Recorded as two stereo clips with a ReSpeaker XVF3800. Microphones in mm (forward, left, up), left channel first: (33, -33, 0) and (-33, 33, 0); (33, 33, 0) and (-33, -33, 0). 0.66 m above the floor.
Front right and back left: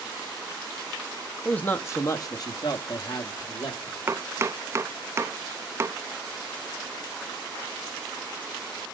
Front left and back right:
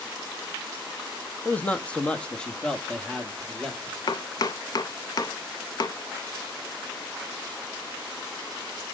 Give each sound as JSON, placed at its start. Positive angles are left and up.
{"t": 1.4, "sound": "a man speaking", "azimuth_deg": 10, "distance_m": 0.7}
{"t": 4.1, "sound": "chopping", "azimuth_deg": 80, "distance_m": 0.6}